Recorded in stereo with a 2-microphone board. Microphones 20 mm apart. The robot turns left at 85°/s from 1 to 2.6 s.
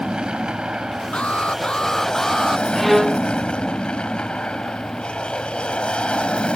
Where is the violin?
10° left (ahead or behind).